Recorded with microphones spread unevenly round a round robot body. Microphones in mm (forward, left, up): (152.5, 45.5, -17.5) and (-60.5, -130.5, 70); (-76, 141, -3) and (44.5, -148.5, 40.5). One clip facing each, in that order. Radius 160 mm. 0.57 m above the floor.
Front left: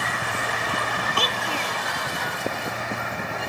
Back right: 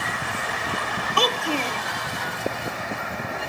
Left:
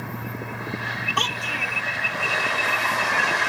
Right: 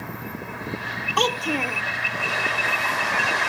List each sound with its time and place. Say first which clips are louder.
1.2 s a child speaking: back right 9 dB, right 13 dB; 110° right